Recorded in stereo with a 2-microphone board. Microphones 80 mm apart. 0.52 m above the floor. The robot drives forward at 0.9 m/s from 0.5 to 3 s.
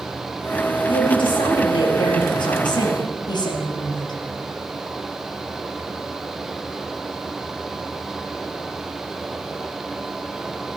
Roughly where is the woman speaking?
Left.